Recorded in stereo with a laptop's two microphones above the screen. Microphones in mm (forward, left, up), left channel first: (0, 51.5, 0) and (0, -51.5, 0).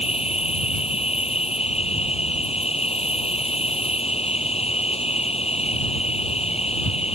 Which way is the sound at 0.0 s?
75° left (ahead or behind).